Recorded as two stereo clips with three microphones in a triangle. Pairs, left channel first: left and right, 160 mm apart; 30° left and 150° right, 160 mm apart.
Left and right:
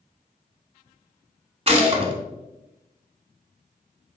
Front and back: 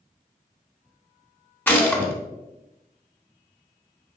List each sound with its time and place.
1.7 s a gunshot: 45° right, 0.8 m